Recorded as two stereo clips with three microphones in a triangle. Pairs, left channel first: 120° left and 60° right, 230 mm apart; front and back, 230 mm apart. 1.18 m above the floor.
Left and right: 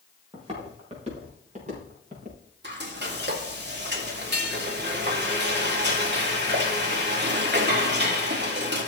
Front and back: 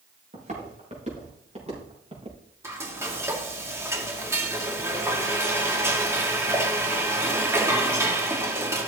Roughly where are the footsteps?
Behind right.